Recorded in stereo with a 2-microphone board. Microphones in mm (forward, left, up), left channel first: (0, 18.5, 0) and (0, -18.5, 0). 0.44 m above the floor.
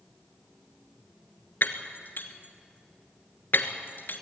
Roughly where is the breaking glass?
Left.